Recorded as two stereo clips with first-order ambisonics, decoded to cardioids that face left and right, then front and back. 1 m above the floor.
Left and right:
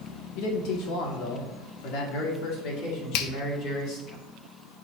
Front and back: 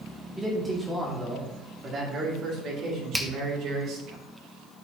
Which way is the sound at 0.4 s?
100° left.